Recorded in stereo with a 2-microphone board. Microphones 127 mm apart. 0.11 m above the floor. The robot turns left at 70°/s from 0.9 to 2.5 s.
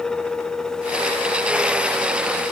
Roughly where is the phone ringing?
I don't hear a phone ringing.